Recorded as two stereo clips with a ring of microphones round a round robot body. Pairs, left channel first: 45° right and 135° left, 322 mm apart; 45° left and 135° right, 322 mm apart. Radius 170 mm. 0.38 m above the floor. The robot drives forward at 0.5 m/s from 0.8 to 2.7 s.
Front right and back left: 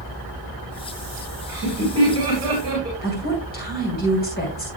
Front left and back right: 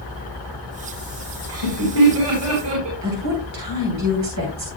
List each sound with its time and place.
1.5 s laughter: 145° right, 4 m; by 2.9 s 150° right, 4.5 m
3.0 s a woman speaking: 105° right, 3 m